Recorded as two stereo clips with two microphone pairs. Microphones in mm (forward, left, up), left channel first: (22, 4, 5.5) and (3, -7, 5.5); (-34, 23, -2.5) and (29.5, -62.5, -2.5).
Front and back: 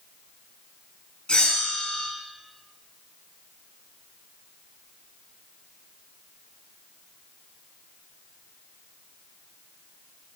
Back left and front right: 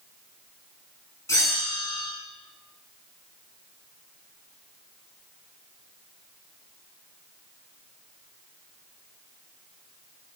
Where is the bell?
65° left, 3.5 m.